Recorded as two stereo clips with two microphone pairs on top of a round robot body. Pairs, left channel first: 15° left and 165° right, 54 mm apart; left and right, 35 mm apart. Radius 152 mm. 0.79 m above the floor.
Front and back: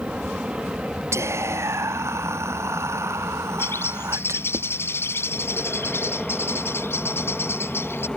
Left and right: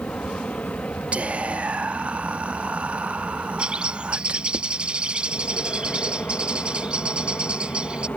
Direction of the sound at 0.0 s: 130° left.